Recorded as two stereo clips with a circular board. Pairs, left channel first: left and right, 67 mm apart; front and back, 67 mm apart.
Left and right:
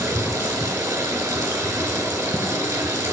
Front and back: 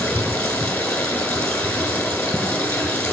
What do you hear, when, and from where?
0.0 s running water: 65° right, 1.6 m